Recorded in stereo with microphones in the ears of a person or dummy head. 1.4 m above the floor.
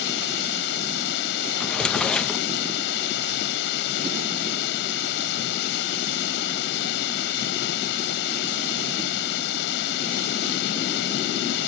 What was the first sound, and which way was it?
Running water, 65° left (ahead or behind).